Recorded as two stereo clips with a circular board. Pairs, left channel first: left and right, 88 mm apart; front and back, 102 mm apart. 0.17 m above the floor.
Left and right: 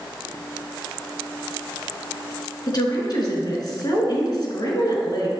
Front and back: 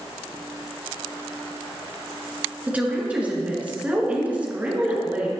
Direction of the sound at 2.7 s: 105° left.